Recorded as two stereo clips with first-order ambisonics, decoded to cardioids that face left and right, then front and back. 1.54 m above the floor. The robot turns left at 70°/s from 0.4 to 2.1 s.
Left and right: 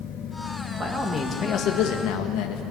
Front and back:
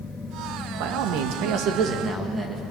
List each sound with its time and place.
0.8 s a man speaking: 165° right, 2.5 m; by 2.6 s 105° left, 2.5 m